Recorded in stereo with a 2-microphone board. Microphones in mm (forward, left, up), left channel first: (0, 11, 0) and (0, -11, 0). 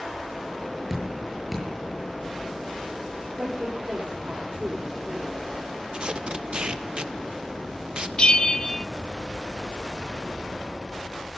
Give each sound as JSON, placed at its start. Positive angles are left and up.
{"t": 0.9, "sound": "dripping", "side_deg": -10, "distance_m": 8.0}
{"t": 3.4, "sound": "a woman speaking", "side_deg": -75, "distance_m": 3.5}
{"t": 5.9, "sound": "tape being pulled", "side_deg": -45, "distance_m": 0.8}
{"t": 8.2, "sound": "a bell", "side_deg": 40, "distance_m": 0.7}